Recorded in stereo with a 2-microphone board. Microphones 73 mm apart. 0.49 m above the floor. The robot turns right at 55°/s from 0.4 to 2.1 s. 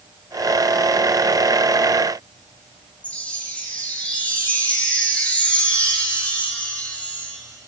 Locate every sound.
3.0 s a chime: 20° left (ahead or behind), 4 m